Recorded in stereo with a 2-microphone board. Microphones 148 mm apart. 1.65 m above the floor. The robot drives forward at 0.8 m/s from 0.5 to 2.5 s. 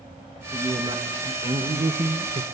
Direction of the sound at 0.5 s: 30° right (ahead or behind).